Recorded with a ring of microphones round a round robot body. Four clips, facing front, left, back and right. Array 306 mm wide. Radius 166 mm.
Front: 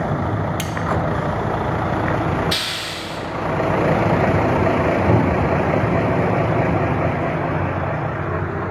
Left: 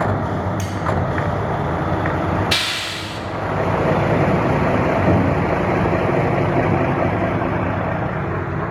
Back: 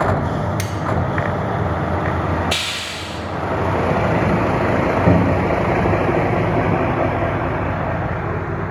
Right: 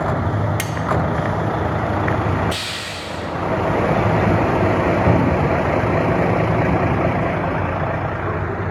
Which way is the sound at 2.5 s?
85° left.